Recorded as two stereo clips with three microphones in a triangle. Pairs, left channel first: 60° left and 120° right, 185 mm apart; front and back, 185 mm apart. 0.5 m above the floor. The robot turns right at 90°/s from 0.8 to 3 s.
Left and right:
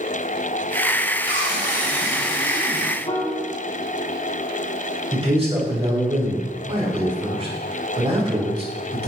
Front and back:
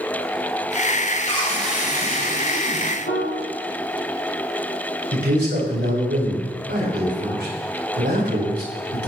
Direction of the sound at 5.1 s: 175° right.